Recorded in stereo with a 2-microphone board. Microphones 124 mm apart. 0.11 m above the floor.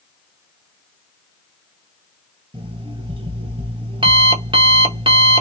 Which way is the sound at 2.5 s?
40° right (ahead or behind).